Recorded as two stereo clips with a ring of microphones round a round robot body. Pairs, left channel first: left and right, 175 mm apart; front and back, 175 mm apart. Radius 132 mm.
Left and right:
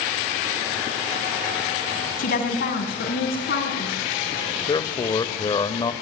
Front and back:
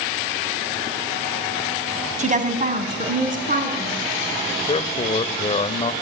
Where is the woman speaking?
135° left, 2.5 m; by 4.0 s 140° left, 5 m.